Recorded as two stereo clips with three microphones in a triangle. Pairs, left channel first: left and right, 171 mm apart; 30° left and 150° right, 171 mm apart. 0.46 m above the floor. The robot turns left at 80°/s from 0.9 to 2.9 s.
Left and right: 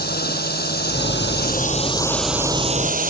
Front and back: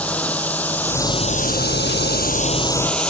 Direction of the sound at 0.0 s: 115° left.